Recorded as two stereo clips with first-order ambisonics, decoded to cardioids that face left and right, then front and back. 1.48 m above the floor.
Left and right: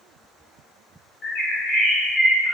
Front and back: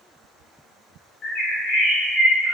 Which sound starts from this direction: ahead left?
A bird, at 1.2 s.